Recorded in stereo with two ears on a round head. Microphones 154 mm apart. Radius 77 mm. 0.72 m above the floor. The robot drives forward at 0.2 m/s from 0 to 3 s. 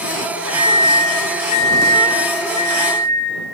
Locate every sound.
0.5 s a microwave: 45° left (ahead or behind), 0.8 m; by 3.2 s 30° left (ahead or behind), 1.2 m